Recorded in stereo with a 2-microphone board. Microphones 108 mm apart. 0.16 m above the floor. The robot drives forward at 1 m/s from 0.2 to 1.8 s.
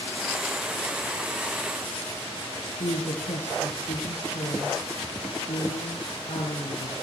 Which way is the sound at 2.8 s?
70° left (ahead or behind).